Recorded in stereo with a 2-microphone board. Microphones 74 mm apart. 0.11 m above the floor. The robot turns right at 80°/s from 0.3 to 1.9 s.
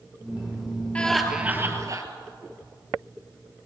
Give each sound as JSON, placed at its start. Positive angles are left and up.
{"t": 0.9, "sound": "laughter", "azimuth_deg": 165, "distance_m": 2.5}